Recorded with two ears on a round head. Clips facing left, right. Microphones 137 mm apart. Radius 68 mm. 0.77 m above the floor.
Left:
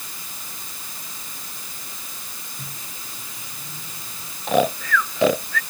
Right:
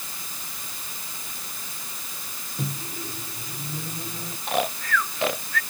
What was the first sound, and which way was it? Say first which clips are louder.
A microwave: right 12 dB; 35° right (ahead or behind).